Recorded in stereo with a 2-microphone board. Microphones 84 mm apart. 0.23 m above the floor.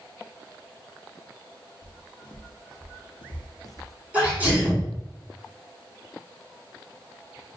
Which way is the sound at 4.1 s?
20° right (ahead or behind).